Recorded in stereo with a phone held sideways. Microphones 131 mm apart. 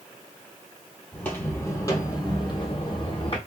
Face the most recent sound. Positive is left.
turn(degrees=45)  # may be behind; listen again after turning